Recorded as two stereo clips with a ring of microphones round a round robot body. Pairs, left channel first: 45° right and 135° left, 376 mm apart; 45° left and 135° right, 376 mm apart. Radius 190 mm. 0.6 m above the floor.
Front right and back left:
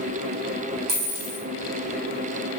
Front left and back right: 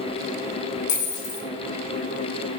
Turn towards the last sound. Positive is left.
turn(degrees=95)